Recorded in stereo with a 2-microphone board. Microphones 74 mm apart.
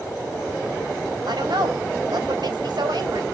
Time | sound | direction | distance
1.3 | a woman speaking | 70° right (ahead or behind) | 3 m